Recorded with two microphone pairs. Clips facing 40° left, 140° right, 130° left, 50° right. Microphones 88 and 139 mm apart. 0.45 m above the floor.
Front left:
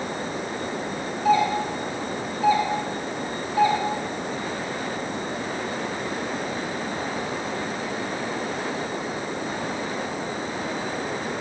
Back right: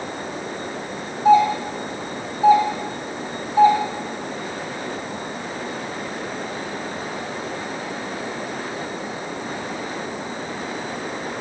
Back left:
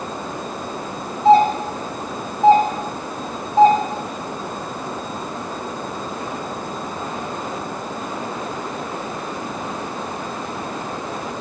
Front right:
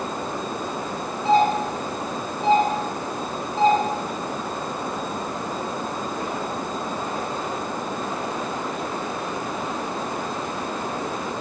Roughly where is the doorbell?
Behind left.